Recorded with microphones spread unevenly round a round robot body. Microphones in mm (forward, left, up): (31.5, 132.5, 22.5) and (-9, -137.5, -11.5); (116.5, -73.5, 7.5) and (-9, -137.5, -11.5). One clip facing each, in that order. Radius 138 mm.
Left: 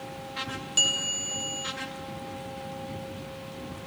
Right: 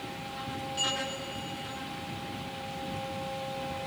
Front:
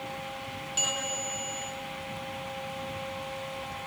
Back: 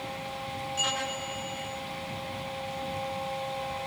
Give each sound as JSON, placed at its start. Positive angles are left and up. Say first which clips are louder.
{"t": 0.8, "sound": "a bell", "louder": "right 2 dB, even", "azimuth_deg": 65, "distance_m": 1.5}